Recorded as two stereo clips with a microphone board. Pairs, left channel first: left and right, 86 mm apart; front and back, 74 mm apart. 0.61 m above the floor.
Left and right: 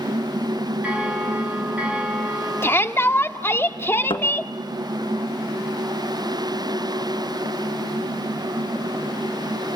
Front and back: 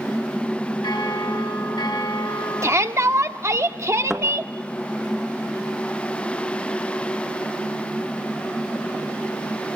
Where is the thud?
95° left, 2 m.